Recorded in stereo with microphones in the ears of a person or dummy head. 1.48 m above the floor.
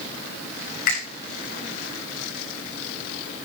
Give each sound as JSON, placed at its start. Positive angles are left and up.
{"t": 0.9, "sound": "a finger snap", "side_deg": 55, "distance_m": 7.5}